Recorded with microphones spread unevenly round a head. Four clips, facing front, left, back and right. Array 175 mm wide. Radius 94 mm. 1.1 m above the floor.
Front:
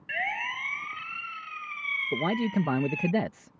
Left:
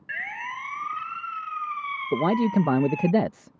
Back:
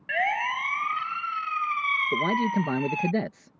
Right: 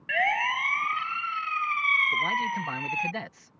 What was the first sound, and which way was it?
A siren, 165° right.